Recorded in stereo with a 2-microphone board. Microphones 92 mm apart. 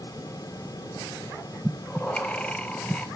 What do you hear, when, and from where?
1.6 s breathing: 10° left (ahead or behind), 0.8 m